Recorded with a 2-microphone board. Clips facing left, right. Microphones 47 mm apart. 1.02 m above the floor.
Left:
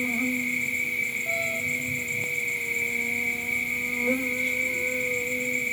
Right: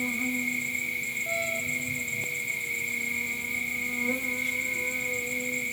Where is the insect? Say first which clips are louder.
Left 3 dB; 55° left (ahead or behind), 1.7 m.